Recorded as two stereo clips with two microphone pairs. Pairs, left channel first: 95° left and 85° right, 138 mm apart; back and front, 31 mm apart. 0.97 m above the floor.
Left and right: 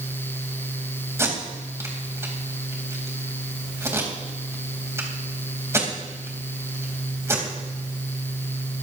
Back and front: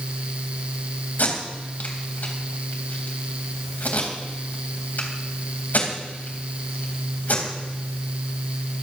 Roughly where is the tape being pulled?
Behind right.